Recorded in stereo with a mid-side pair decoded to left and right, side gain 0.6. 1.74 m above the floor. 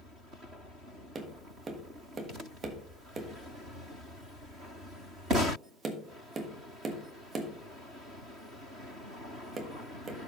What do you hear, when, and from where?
1.1 s tapping: 35° right, 1.3 m